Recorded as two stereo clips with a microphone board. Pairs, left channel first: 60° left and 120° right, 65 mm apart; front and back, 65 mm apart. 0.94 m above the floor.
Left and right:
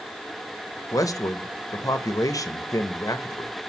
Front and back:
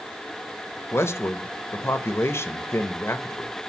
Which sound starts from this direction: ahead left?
A man speaking, at 0.9 s.